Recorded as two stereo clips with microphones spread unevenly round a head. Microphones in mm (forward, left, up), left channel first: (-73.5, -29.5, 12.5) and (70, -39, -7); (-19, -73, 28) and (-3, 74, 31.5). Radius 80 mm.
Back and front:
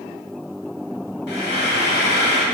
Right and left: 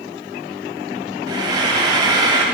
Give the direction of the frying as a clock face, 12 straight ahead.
7 o'clock.